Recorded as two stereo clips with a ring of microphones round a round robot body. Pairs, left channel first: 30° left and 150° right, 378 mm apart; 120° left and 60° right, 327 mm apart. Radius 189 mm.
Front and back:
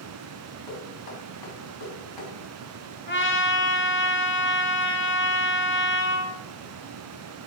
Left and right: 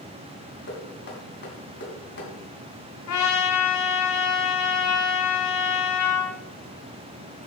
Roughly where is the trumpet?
Left.